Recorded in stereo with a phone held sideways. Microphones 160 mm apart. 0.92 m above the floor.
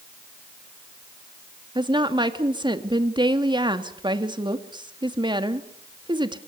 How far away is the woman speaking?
About 1.9 m.